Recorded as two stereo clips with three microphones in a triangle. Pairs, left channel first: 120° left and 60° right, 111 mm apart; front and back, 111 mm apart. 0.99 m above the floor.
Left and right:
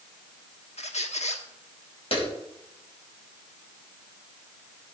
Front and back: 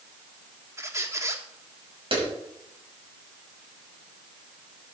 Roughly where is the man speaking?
No man speaking in this recording.